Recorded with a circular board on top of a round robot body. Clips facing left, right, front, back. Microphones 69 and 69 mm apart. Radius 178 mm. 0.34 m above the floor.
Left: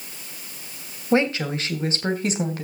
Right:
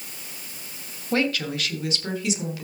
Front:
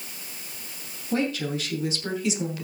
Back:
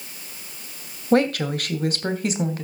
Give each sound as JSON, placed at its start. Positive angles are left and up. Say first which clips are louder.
{"t": 1.1, "sound": "a woman speaking", "louder": "left 4 dB, back 7 dB", "azimuth_deg": 160, "distance_m": 2.5}